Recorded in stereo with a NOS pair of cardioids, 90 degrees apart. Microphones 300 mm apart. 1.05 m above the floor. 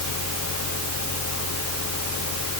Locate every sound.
0.0 s a fan: 55° left